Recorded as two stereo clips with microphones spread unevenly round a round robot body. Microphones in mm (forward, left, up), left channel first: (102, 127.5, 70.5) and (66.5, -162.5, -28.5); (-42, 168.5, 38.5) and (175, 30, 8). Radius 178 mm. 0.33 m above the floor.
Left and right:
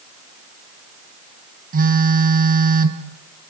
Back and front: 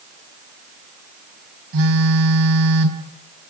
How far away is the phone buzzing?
About 2.5 m.